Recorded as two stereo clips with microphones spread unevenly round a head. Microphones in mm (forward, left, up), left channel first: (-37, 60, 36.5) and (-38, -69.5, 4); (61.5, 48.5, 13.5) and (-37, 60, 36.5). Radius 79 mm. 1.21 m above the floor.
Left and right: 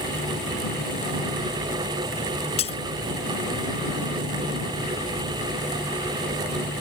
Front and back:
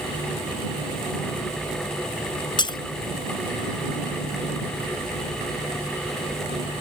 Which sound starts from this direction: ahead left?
Breaking glass, at 2.6 s.